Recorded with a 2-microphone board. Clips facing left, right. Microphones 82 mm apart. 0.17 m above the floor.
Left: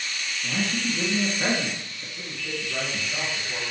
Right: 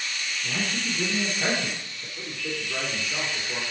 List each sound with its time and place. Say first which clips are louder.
0.4 s a man speaking: left 3 dB; 35° left (ahead or behind), 2.0 m
2.2 s a man speaking: right 1 dB; 15° right (ahead or behind), 2.5 m